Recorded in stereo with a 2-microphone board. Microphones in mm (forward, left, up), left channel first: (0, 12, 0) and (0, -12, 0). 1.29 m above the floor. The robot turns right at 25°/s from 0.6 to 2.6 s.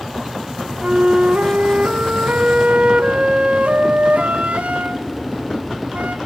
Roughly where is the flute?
Behind right.